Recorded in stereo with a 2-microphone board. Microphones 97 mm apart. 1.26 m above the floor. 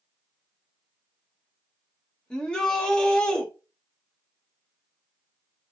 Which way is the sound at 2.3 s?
10° left (ahead or behind).